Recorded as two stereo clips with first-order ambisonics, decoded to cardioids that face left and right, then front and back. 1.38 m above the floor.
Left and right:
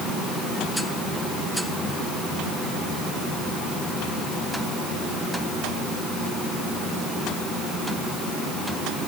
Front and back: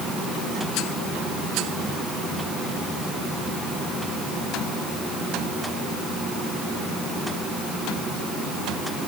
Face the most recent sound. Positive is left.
No sound to turn to.